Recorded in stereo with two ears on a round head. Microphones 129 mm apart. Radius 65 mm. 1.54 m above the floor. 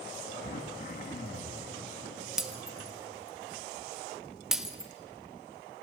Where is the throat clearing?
55° left (ahead or behind), 1.7 m.